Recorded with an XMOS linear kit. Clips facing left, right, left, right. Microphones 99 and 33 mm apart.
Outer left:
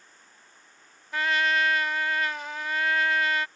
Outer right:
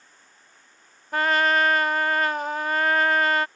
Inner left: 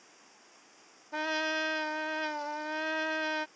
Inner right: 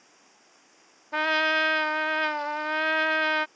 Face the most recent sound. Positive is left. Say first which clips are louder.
# outer right 4 dB, inner right 8 dB
turn(degrees=-45)  # may be behind; listen again after turning